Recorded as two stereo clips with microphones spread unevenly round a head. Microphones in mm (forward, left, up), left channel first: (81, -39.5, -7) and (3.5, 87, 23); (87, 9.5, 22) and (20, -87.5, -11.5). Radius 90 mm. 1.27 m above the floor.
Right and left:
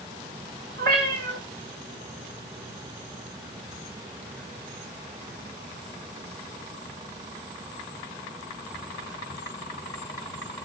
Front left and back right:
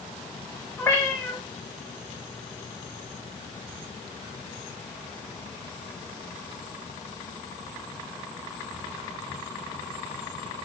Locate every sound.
0.8 s a cat meowing: 130° left, 4 m